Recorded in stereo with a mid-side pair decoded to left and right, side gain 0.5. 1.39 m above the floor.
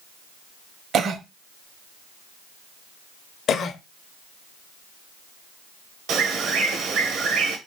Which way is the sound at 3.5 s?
55° left.